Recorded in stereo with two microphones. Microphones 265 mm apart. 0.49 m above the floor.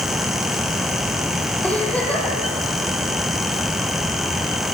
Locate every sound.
1.6 s a giggle: 5° left (ahead or behind), 6 m